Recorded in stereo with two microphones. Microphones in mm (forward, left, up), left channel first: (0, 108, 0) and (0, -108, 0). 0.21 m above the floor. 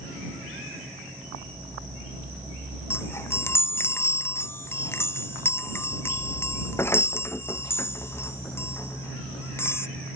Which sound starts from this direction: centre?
A chime, at 2.9 s.